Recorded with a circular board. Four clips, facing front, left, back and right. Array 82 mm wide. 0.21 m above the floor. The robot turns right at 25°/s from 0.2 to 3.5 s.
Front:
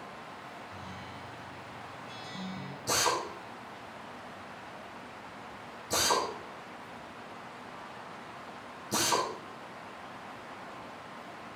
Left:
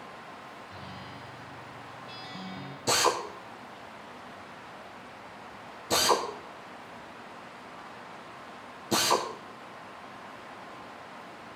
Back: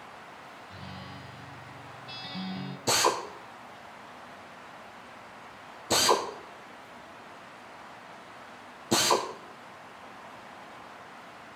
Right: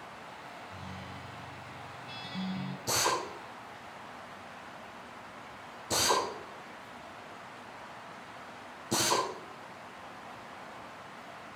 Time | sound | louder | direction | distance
0.7 | a guitar | left 1 dB, even | 150° left | 1.6 m
2.9 | a drill | left 5 dB, back 4 dB | 150° left | 3 m